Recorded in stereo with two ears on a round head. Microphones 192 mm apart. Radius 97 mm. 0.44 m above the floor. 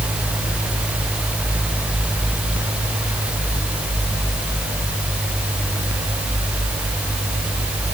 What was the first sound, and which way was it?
Only background noise.